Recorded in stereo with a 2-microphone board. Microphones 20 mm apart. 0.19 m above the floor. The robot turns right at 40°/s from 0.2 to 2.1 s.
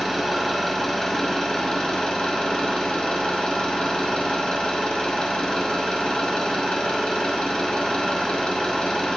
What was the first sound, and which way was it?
An engine running, 20° right.